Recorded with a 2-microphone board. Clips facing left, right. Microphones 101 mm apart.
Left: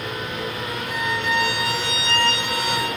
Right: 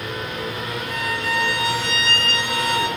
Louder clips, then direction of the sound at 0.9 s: Left 2 dB; 40° right (ahead or behind).